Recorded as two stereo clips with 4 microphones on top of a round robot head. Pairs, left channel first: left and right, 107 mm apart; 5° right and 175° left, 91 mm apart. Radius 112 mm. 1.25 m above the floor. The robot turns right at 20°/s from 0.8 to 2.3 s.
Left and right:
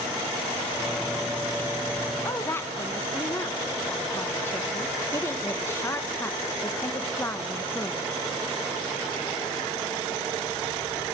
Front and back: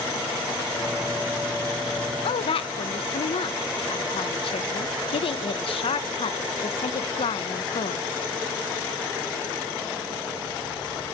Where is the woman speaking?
15° left, 0.8 m.